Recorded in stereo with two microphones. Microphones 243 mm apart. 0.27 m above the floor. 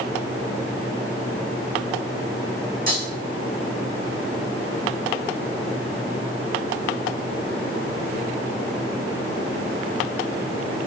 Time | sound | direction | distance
2.9 | breaking glass | 40° right (ahead or behind) | 5.5 m